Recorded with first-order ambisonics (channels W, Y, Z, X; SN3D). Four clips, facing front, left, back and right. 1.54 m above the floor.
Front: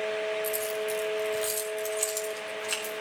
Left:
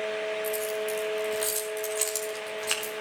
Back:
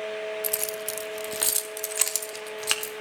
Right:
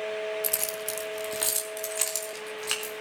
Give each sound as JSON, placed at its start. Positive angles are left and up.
{"t": 0.4, "sound": "keys jangling", "azimuth_deg": -130, "distance_m": 1.7}